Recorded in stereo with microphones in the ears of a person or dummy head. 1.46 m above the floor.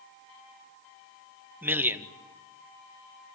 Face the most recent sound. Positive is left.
turn(degrees=-10)  # may be behind; listen again after turning